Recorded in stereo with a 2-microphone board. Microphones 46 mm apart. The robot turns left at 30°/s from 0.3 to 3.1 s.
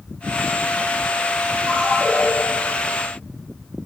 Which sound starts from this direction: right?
A ringtone, at 1.7 s.